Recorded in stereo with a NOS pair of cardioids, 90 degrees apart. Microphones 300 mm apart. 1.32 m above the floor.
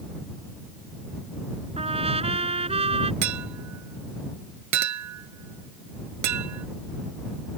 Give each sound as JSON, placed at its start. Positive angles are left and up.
{"t": 1.8, "sound": "a trumpet", "azimuth_deg": -20}
{"t": 3.2, "sound": "a clink", "azimuth_deg": -65}